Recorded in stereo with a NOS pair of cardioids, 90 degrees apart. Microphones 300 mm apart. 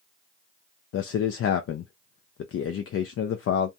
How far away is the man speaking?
About 0.5 m.